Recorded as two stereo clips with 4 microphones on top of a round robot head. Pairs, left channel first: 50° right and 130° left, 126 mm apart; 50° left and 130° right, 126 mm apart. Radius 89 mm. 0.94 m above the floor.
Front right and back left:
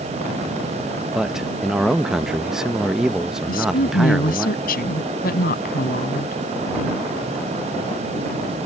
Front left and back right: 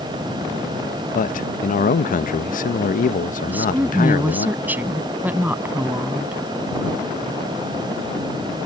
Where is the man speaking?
45° left.